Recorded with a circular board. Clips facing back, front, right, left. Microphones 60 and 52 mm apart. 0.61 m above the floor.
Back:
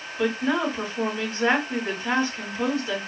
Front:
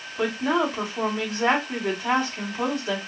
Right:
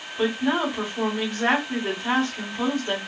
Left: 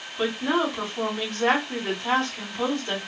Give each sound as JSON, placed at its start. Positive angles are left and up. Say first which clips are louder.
{"t": 0.2, "sound": "a woman speaking", "louder": "front 1 dB, right 1 dB", "azimuth_deg": -10, "distance_m": 3.0}